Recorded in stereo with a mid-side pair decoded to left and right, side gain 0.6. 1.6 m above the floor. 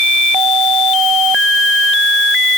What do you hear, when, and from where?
Only background noise.